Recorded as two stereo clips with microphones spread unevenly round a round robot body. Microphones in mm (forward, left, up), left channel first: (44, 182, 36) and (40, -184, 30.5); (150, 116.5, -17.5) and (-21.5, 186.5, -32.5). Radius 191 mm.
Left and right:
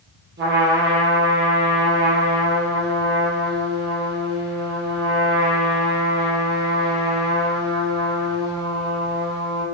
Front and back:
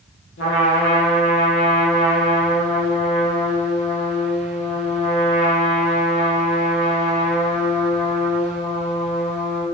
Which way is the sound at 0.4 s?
25° right.